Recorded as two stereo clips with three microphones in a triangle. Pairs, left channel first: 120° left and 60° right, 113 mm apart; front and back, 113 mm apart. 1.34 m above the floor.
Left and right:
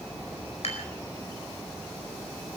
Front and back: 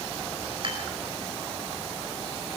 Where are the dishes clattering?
140° left, 4.5 m.